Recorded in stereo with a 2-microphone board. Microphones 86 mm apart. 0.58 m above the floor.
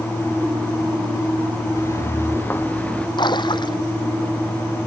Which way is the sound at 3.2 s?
65° left (ahead or behind).